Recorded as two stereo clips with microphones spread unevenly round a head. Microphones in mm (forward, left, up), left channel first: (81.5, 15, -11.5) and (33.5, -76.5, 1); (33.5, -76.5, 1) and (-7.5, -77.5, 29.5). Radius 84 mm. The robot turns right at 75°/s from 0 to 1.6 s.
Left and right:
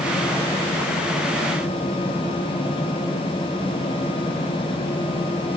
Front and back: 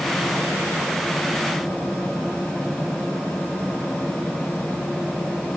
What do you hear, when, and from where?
Only background noise.